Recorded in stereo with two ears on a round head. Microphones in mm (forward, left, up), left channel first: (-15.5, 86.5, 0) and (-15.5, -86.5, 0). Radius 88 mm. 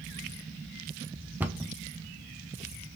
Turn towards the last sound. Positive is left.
turn(degrees=-10)  # may be behind; listen again after turning